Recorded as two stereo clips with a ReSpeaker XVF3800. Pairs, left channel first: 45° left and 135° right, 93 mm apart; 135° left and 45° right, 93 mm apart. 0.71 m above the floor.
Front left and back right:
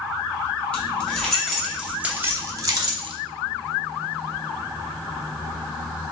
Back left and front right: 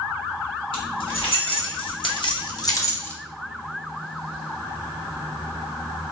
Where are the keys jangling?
120° left, 1.3 m; by 3.1 s 155° right, 0.7 m.